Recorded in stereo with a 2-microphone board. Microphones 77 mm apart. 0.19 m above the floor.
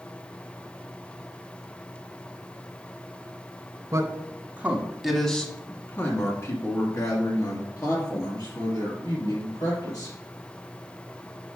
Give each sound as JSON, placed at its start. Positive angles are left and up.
{"t": 3.9, "sound": "a man speaking", "side_deg": -40, "distance_m": 1.4}